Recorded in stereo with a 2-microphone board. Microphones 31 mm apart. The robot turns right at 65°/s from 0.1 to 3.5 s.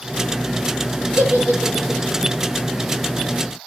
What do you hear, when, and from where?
1.2 s a giggle: 85° right, 6 m; by 2.0 s 35° right (ahead or behind), 6 m